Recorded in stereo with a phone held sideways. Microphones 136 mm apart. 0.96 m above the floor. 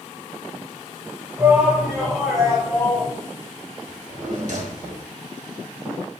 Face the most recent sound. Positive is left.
turn(degrees=-60)  # may be behind; listen again after turning